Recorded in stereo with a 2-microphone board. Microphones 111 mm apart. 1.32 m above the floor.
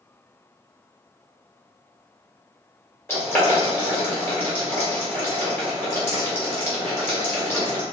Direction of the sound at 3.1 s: 20° left (ahead or behind).